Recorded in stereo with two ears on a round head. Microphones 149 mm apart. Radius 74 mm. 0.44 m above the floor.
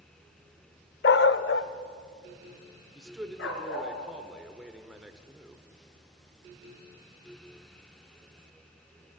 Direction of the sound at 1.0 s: 65° left (ahead or behind).